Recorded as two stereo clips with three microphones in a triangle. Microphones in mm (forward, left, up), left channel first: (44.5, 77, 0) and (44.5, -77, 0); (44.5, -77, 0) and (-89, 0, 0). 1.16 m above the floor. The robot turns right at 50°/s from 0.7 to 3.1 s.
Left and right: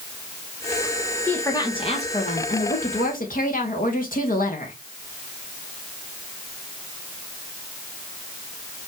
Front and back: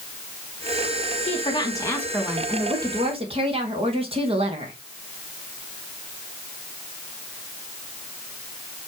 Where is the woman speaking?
10° left, 1.6 m; by 4.8 s 105° left, 1.6 m.